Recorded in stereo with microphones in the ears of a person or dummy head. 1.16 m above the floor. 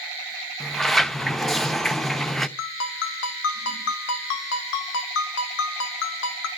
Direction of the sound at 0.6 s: Centre (ahead or behind).